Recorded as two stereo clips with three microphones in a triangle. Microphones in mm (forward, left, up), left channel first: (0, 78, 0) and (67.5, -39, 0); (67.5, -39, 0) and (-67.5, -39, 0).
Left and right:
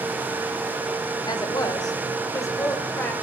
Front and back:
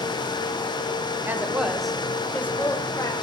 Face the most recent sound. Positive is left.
turn(degrees=50)